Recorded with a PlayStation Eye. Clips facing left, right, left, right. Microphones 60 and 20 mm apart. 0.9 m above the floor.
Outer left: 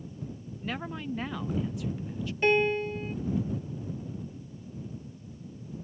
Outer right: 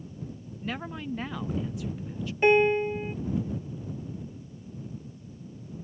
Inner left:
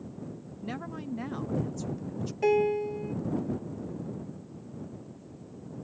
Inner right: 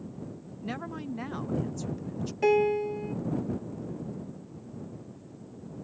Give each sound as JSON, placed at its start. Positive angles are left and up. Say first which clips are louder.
{"t": 0.6, "sound": "a woman speaking", "louder": "even, inner right 1 dB", "side_deg": 0}
{"t": 2.4, "sound": "a piano", "louder": "outer right 4 dB, inner right 1 dB", "side_deg": -15}